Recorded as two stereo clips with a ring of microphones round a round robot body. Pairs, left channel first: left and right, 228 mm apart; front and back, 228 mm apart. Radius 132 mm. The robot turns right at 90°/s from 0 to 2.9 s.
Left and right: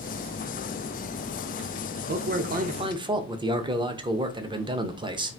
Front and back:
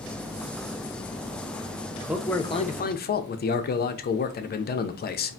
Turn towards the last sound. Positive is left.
turn(degrees=-25)